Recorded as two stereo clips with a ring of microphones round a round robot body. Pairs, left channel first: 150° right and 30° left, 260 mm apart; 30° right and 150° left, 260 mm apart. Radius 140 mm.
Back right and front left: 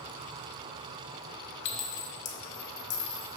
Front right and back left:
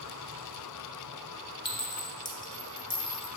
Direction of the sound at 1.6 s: 105° right.